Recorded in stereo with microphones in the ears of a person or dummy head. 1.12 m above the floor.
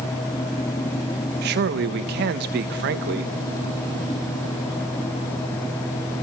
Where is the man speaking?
55° right (ahead or behind), 1.2 m.